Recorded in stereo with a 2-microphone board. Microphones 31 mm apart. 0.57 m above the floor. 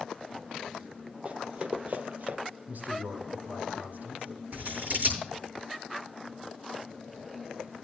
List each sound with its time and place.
1.2 s running footsteps: 40° right (ahead or behind), 1.3 m; by 2.4 s 60° right (ahead or behind), 0.9 m
2.7 s a man speaking: 65° right (ahead or behind), 4.5 m
4.5 s scissors: 60° right (ahead or behind), 7.5 m